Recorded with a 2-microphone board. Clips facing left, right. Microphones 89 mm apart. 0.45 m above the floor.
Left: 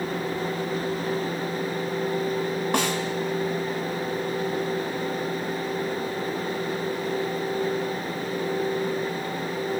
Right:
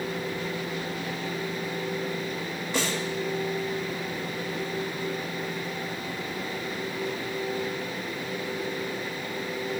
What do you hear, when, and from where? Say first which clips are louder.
2.7 s a snare drum: left 2 dB; 70° left (ahead or behind), 2.0 m